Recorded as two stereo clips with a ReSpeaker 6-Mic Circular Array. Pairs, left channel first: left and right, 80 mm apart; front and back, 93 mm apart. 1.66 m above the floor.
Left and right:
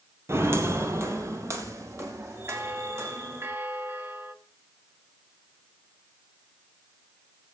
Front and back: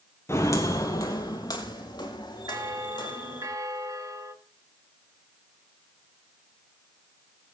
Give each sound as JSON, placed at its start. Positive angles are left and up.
{"t": 0.3, "sound": "footsteps", "azimuth_deg": -45, "distance_m": 2.5}
{"t": 2.5, "sound": "a bell", "azimuth_deg": -145, "distance_m": 1.4}